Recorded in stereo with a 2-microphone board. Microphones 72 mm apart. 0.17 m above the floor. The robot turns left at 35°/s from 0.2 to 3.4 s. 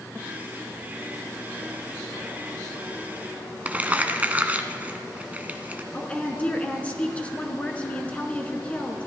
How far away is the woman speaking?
About 1.6 m.